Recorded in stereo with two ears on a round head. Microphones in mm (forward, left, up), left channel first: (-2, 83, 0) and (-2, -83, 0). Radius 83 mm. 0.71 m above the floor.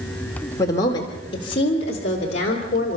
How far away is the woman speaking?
About 2 m.